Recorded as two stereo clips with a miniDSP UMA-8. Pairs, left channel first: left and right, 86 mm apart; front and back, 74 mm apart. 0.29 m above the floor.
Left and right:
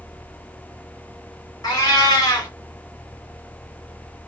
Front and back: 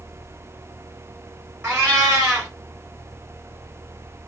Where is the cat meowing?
125° left, 1.2 m.